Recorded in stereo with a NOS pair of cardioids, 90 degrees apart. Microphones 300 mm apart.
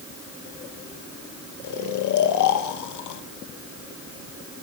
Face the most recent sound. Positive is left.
turn(degrees=70)